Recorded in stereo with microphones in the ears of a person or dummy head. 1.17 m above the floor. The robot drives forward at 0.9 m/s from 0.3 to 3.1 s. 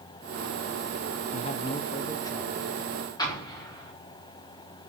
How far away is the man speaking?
About 0.7 m.